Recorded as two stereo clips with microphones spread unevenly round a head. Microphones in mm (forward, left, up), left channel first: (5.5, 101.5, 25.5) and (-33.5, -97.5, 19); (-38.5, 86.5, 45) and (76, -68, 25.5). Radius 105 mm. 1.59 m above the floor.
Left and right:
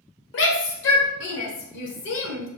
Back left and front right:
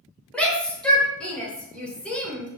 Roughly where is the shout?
Ahead left.